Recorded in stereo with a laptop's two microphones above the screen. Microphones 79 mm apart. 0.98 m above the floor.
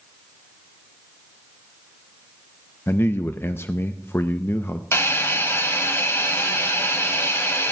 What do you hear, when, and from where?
2.9 s a man speaking: 30° left (ahead or behind), 0.5 m
4.9 s a hiss: 30° left (ahead or behind), 1.6 m